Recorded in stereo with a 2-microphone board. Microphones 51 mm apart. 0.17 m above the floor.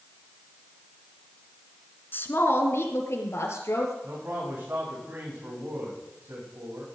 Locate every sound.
2.1 s a woman speaking: 45° left (ahead or behind), 1.9 m; by 3.9 s 70° left (ahead or behind), 4 m
4.0 s a man speaking: 40° right (ahead or behind), 9.5 m